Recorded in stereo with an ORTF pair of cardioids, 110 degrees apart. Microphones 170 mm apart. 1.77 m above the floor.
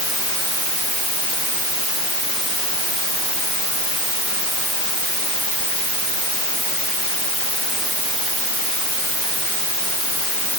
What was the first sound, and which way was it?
Only background noise.